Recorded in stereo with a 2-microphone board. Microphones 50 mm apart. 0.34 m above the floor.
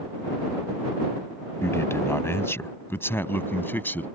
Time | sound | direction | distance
1.6 | a man speaking | 65° left (ahead or behind) | ?